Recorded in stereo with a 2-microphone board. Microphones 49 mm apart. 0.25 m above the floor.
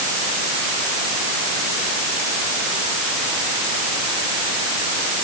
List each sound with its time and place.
Only background noise.